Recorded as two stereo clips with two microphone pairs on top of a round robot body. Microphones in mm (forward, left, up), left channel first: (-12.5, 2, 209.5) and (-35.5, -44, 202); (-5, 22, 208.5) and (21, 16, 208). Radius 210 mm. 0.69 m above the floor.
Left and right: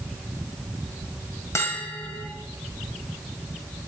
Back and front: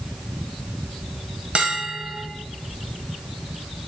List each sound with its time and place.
1.6 s a bell: 35° left, 1.3 m